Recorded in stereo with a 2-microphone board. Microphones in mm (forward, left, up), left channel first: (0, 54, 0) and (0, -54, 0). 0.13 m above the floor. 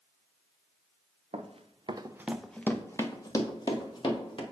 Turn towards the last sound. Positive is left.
turn(degrees=50)  # may be behind; listen again after turning